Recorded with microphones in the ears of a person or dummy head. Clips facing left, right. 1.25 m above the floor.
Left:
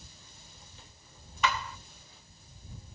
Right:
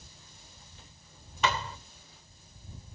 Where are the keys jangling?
I don't hear keys jangling.